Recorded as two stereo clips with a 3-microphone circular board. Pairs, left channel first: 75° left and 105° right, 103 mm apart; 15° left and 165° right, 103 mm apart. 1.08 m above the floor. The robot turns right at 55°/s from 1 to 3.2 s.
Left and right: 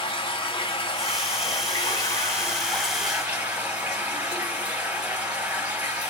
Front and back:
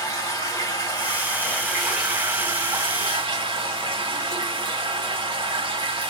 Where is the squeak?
No squeak in this recording.